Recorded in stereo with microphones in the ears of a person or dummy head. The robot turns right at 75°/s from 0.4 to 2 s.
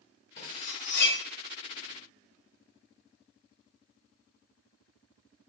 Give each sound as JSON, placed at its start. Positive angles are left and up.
{"t": 0.4, "sound": "cutlery clinking", "side_deg": 45, "distance_m": 1.4}